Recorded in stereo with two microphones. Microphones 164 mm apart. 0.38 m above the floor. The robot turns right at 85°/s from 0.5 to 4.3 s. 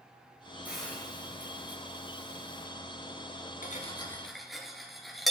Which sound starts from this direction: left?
Cutlery clinking, at 3.6 s.